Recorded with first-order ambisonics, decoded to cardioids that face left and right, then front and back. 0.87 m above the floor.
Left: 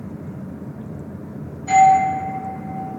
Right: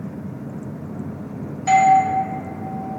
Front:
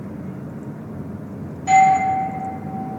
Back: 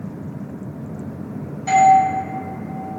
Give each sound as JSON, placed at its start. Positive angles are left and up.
{"t": 1.7, "sound": "a doorbell", "azimuth_deg": -105, "distance_m": 1.3}